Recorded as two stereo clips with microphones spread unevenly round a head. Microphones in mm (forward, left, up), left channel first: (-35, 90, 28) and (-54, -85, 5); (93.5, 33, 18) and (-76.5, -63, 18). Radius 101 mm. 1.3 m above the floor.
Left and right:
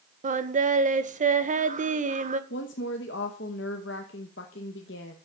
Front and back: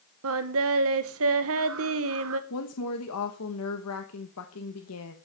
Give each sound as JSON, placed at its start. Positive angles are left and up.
{"t": 0.2, "sound": "singing", "azimuth_deg": -140, "distance_m": 1.1}
{"t": 2.5, "sound": "a woman speaking", "azimuth_deg": 45, "distance_m": 1.1}